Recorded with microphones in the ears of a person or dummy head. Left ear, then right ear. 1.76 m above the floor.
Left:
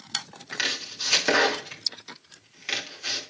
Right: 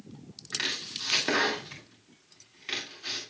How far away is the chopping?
About 2.5 m.